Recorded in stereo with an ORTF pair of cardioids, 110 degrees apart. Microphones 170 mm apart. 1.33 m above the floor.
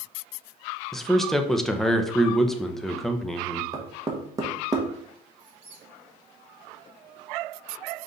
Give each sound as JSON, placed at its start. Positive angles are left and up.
{"t": 0.9, "sound": "a man speaking", "azimuth_deg": 0, "distance_m": 0.6}
{"t": 3.7, "sound": "knocking", "azimuth_deg": -20, "distance_m": 1.0}
{"t": 5.4, "sound": "a squeak", "azimuth_deg": -55, "distance_m": 2.5}